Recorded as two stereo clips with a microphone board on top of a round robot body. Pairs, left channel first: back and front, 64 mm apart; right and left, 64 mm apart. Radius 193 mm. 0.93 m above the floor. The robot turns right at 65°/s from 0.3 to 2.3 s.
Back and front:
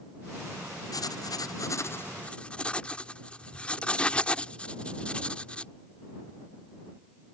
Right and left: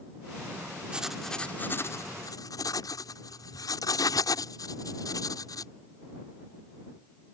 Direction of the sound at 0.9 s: 165° left.